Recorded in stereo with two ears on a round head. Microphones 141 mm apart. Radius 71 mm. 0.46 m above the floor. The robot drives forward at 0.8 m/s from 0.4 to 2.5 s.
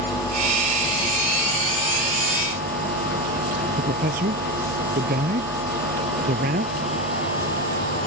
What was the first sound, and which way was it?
A man speaking, 55° right (ahead or behind).